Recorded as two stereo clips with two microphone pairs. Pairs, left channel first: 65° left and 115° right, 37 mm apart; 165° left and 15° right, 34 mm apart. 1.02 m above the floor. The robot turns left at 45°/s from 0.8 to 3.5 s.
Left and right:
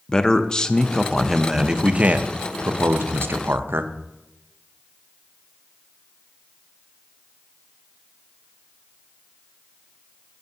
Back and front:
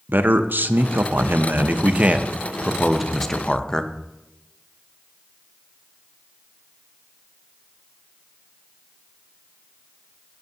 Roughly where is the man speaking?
Ahead.